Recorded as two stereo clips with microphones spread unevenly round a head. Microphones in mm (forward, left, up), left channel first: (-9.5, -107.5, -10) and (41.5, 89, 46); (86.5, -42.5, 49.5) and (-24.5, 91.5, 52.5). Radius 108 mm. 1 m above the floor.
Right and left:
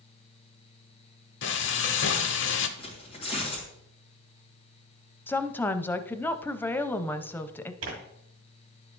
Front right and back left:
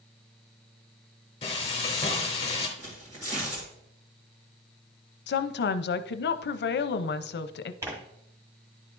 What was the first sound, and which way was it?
Frying, 100° right.